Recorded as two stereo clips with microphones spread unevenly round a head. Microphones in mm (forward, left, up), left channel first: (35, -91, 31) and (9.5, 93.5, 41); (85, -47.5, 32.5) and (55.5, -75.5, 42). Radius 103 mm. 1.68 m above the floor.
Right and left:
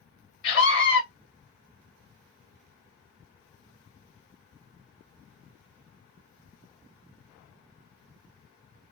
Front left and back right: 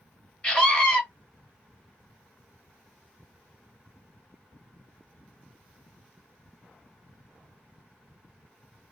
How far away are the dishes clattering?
No dishes clattering in this recording.